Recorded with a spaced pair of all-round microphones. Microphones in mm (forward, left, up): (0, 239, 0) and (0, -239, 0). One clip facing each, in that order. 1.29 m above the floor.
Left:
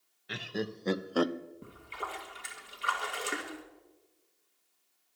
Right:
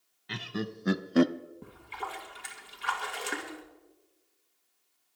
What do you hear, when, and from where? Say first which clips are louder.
0.3 s laughter: even; 15° right (ahead or behind), 1.0 m; by 1.3 s 50° right (ahead or behind), 0.5 m
1.6 s a splash: right 1 dB; 10° right (ahead or behind), 2.5 m